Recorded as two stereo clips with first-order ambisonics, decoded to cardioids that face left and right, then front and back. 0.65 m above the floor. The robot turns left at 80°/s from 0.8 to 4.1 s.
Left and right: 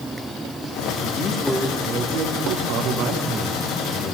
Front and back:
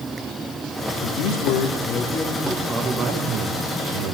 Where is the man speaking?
35° left, 3 m; by 4.1 s 145° left, 3 m.